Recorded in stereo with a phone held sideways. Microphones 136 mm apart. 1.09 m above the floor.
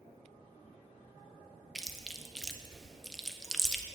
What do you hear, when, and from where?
1.8 s chewing: centre (ahead or behind), 0.7 m